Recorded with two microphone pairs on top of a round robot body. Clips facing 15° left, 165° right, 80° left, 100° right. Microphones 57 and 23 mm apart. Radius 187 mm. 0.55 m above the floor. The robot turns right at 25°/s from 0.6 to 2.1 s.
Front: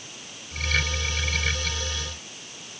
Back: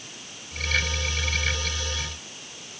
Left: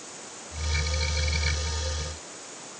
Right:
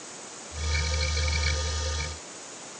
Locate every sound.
Only background noise.